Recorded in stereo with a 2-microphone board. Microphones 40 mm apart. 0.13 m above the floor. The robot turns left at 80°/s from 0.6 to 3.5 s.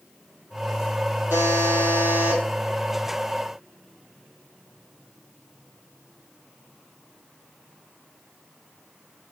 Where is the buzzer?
70° right, 2 m; by 2.4 s 160° right, 2 m.